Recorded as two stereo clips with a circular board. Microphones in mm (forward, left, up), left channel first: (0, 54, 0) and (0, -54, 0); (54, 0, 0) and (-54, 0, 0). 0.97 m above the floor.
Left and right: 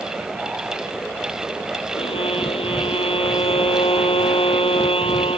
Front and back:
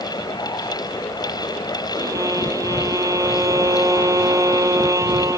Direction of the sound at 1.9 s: 120° left.